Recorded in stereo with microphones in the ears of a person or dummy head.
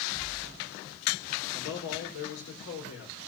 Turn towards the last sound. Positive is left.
turn(degrees=85)